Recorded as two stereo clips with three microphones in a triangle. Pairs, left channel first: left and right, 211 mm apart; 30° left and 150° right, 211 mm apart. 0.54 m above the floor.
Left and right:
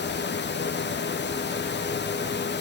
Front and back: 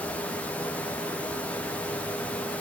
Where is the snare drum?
No snare drum in this recording.